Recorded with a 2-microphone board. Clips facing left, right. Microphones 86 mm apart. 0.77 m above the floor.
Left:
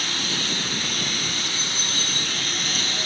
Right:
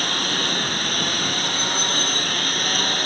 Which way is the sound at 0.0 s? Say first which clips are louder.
Right 5 dB; 50° right (ahead or behind).